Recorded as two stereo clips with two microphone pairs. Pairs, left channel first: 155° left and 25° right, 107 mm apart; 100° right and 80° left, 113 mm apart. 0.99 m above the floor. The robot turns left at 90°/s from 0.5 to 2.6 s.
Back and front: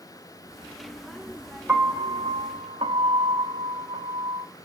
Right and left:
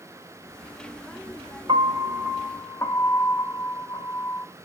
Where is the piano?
45° left, 0.9 m; by 4.5 s 40° right, 0.9 m.